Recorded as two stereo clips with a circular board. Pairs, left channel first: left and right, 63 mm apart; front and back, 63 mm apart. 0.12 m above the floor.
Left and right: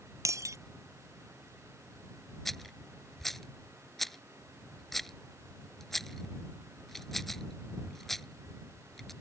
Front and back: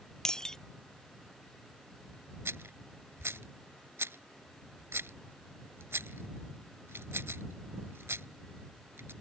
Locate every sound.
0.2 s breaking glass: 80° right
2.5 s a rattle: 175° left